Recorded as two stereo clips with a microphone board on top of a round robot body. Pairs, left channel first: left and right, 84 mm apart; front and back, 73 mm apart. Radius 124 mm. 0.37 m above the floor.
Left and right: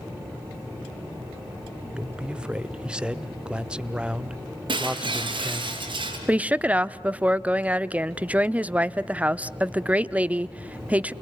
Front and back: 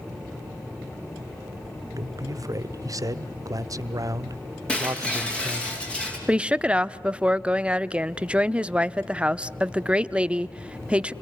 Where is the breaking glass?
75° right, 5 m.